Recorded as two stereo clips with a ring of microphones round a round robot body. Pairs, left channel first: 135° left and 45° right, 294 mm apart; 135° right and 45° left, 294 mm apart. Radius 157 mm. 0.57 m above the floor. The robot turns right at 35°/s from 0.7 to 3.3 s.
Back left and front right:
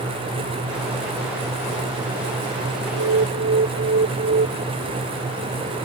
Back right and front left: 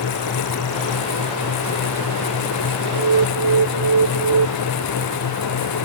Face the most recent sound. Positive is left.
turn(degrees=15)